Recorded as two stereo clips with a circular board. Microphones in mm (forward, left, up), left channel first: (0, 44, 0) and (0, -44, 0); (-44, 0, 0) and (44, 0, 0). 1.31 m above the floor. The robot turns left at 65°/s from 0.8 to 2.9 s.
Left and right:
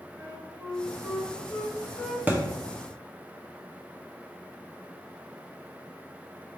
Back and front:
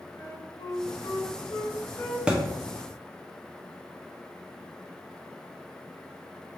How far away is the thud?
About 0.6 m.